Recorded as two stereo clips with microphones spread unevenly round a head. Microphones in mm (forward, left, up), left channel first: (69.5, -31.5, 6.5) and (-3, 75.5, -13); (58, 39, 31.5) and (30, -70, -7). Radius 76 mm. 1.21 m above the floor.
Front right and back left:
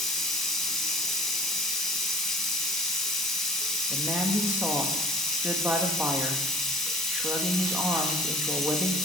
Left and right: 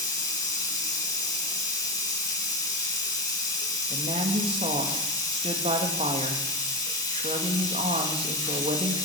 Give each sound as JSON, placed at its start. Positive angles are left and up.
{"t": 0.0, "sound": "running water", "azimuth_deg": 30, "distance_m": 3.0}
{"t": 3.9, "sound": "a woman speaking", "azimuth_deg": -155, "distance_m": 1.7}